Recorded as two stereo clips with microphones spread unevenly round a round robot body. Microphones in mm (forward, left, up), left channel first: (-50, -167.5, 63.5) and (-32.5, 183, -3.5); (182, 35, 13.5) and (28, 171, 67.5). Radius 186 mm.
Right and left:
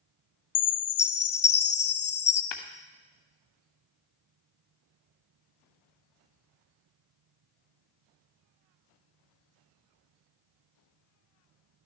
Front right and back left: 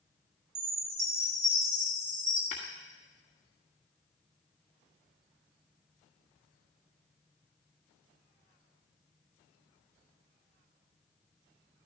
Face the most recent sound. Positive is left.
turn(degrees=-105)